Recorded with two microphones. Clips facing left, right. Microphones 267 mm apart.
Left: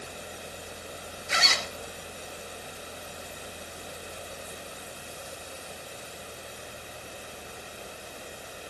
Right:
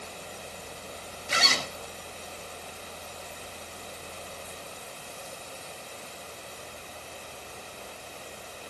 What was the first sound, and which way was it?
A zipper, 40° right (ahead or behind).